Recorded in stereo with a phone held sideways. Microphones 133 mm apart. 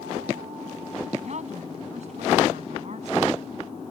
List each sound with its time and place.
1.2 s a woman speaking: 65° right (ahead or behind)